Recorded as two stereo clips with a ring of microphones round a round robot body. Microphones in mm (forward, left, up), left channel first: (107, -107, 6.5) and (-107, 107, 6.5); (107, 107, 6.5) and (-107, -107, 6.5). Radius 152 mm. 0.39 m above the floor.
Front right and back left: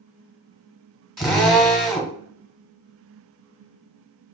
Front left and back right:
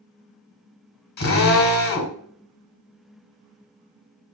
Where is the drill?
45° left, 1.4 m.